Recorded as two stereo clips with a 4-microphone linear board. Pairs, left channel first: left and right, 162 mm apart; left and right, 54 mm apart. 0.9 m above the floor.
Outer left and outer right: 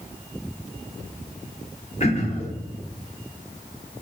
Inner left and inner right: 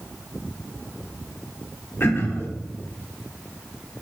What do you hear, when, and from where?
2.0 s throat clearing: 45° left (ahead or behind), 1.1 m